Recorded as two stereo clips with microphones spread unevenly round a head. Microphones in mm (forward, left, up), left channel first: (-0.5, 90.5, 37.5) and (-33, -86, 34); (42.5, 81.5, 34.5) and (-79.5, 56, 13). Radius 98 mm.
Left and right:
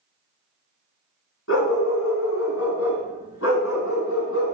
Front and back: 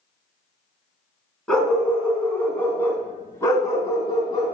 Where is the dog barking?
90° left, 3 m; by 4.5 s 60° left, 2.5 m.